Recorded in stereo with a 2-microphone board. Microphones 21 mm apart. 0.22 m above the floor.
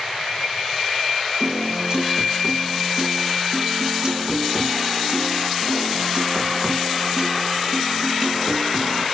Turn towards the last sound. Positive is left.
turn(degrees=-30)  # may be behind; listen again after turning